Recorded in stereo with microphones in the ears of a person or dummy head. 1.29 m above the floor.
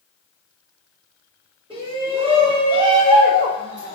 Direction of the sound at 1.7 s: 25° right (ahead or behind).